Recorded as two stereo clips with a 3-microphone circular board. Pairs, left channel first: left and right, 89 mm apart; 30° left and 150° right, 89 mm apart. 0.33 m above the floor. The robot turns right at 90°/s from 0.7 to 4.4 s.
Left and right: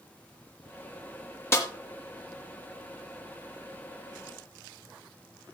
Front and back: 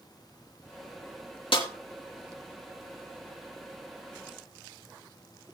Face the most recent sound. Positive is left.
turn(degrees=-70)